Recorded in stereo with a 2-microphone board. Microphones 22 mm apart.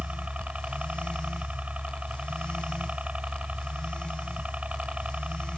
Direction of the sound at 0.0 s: 80° right.